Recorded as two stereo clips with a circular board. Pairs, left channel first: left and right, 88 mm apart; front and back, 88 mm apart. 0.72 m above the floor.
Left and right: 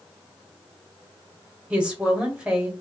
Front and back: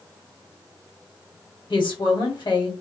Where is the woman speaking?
15° right, 1.2 m.